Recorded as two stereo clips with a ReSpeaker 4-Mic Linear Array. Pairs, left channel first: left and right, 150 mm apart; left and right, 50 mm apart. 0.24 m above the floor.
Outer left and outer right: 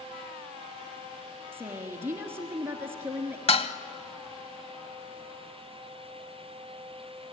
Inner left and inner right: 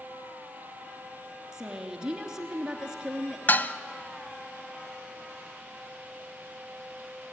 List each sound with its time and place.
1.5 s a woman speaking: 15° right (ahead or behind), 3 m
3.5 s dishes clattering: 40° left (ahead or behind), 0.8 m